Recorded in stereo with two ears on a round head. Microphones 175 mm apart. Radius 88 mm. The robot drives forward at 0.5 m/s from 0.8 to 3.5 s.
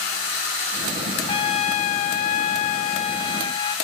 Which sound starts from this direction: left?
A trumpet, at 1.3 s.